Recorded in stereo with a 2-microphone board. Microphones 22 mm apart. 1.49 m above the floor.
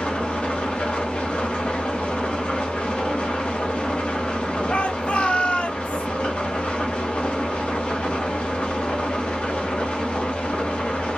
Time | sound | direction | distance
0.0 | an engine running | 65° left (ahead or behind) | 0.8 m
4.7 | a shout | 60° left (ahead or behind) | 0.7 m